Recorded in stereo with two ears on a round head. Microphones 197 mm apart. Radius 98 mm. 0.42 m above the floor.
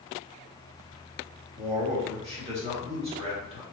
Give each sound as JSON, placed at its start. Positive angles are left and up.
{"t": 1.6, "sound": "a man speaking", "side_deg": -30, "distance_m": 1.2}